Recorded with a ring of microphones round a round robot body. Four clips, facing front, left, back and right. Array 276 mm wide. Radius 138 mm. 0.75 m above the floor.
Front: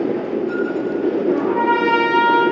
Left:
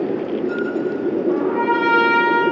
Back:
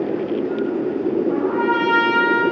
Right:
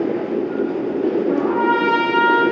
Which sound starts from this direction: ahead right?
A trumpet, at 1.3 s.